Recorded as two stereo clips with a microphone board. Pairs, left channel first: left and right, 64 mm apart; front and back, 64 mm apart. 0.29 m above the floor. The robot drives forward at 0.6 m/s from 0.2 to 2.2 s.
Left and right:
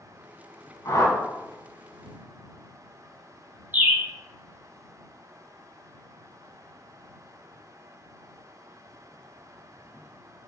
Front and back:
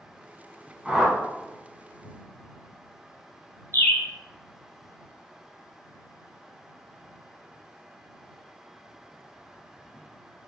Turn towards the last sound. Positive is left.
turn(degrees=-35)